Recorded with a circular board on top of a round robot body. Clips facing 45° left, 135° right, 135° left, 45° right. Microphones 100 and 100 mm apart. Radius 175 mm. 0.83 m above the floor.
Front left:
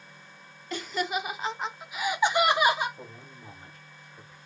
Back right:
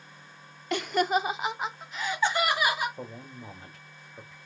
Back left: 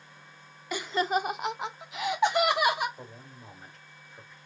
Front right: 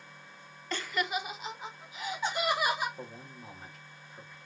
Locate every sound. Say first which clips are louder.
0.7 s laughter: back right 5 dB, back left 6 dB; 145° right, 0.6 m; by 2.9 s 110° left, 1.2 m
3.0 s a man speaking: back right 5 dB, front right 2 dB; 130° right, 1.4 m